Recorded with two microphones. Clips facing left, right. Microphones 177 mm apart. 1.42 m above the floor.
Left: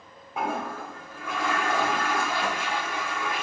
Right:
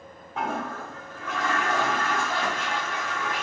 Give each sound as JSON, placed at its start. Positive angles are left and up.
{"t": 0.4, "sound": "a toilet flushing", "side_deg": 10, "distance_m": 0.9}